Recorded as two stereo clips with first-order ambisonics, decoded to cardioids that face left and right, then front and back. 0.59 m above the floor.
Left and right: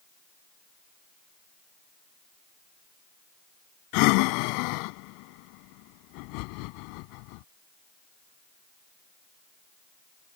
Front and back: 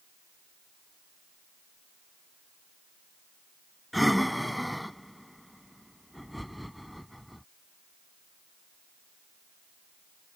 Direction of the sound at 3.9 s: 90° left.